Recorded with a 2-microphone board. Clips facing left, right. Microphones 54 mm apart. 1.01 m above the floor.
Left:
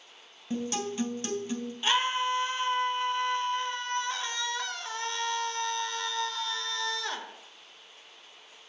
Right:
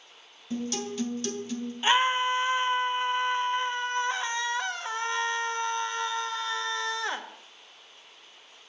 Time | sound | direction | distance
0.5 | a guitar | 30° left (ahead or behind) | 3 m
1.8 | a scream | 25° right (ahead or behind) | 1.0 m